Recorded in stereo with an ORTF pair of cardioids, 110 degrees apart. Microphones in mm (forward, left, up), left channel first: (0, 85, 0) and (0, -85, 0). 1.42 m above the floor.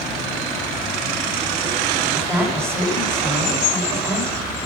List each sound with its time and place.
2.1 s a woman speaking: 15° right, 6 m